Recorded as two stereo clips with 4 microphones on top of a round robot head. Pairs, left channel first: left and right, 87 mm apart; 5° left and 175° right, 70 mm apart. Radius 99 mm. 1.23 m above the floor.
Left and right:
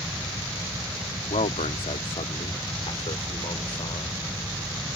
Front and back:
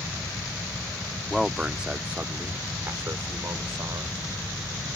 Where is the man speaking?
95° left; by 4.2 s 140° left.